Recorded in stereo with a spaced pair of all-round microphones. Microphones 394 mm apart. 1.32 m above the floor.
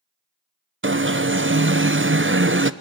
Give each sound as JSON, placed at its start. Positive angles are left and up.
{"t": 0.8, "sound": "an alarm", "side_deg": -30, "distance_m": 0.9}